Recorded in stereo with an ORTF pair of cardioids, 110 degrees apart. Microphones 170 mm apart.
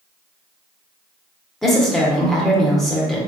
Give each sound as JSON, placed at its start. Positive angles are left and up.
{"t": 1.6, "sound": "a woman speaking", "azimuth_deg": 0, "distance_m": 1.1}